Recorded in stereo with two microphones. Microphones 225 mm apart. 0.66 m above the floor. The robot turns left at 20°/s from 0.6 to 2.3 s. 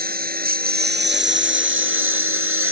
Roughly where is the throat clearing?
I don't hear throat clearing.